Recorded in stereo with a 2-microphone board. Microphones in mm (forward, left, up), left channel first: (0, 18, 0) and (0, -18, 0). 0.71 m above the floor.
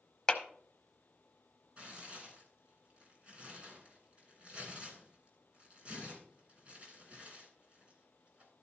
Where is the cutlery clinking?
I don't hear cutlery clinking.